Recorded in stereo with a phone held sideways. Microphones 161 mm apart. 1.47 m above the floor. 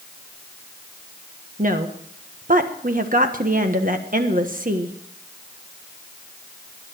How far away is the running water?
No running water in this recording.